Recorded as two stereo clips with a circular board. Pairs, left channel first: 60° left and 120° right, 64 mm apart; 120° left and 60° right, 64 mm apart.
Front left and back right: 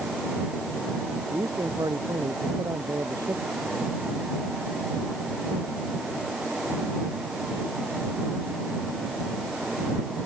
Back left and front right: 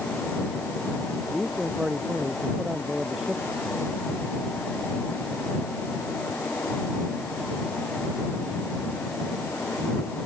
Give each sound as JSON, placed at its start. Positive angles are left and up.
{"t": 1.3, "sound": "a man speaking", "azimuth_deg": -140}